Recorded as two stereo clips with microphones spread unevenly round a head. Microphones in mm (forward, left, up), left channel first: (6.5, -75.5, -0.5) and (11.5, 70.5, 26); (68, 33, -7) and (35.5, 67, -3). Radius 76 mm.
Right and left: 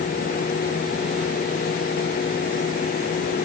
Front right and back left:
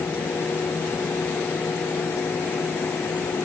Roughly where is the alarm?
I don't hear an alarm.